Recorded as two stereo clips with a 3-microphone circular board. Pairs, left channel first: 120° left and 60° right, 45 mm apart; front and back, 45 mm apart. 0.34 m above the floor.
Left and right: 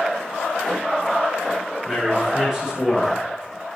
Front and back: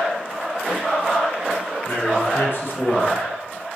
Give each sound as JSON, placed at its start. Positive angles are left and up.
{"t": 1.9, "sound": "a man speaking", "azimuth_deg": 15, "distance_m": 4.0}